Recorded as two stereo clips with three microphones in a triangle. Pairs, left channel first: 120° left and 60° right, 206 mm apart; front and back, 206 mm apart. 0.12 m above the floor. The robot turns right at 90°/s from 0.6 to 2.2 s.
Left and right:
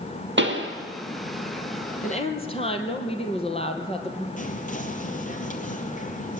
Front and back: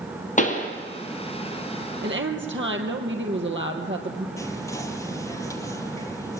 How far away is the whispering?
About 3.5 m.